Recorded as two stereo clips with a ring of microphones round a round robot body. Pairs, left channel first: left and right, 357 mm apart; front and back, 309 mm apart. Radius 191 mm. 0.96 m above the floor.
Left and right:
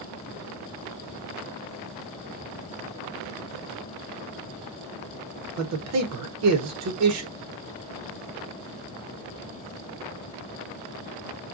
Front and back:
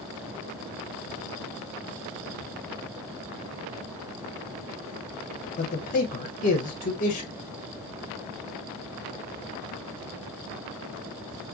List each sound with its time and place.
5.6 s a man speaking: 60° right, 0.6 m